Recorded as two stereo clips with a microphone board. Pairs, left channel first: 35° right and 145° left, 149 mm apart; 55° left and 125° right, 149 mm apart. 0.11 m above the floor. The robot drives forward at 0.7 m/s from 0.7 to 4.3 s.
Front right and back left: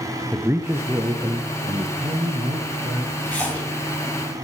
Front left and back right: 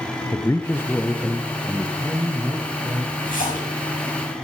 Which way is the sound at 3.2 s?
45° left.